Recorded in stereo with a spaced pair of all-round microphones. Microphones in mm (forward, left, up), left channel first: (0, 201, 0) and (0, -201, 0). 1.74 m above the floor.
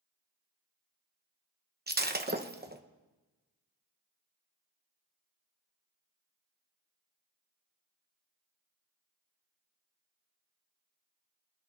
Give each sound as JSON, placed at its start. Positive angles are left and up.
{"t": 1.9, "sound": "breaking glass", "side_deg": -25, "distance_m": 0.8}